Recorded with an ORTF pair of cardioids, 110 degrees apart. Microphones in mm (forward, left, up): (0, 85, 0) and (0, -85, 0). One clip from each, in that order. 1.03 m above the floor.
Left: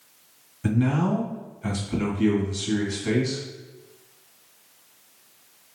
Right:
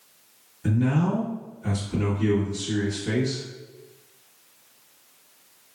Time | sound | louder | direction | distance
0.6 | a man speaking | left 1 dB | 35° left | 1.4 m